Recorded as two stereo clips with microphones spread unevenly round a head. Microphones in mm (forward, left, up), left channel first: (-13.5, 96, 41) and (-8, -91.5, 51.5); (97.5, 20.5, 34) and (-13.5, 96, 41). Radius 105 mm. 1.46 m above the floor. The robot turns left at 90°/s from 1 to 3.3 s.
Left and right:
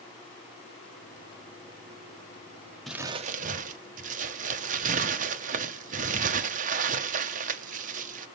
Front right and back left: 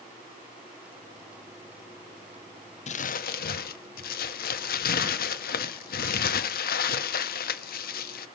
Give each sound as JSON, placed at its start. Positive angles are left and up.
{"t": 2.9, "sound": "crumpling", "azimuth_deg": 0, "distance_m": 0.7}